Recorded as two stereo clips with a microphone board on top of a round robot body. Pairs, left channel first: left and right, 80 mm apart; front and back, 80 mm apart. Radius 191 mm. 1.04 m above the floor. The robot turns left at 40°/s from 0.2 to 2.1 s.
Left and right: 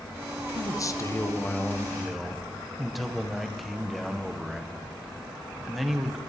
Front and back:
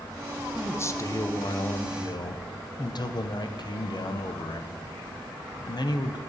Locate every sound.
0.6 s a man speaking: 60° left, 0.8 m; by 6.2 s straight ahead, 0.8 m